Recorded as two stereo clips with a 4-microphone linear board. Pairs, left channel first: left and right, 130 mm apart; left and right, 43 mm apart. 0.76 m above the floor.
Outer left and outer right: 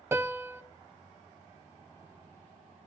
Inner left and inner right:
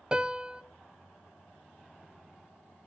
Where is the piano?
20° right (ahead or behind), 0.7 m.